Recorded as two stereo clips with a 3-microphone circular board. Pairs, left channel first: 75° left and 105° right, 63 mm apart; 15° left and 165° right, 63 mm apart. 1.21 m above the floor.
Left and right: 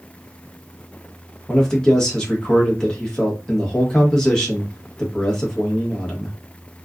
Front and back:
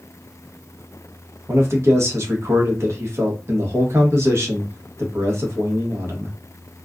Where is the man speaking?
155° left, 1.0 m.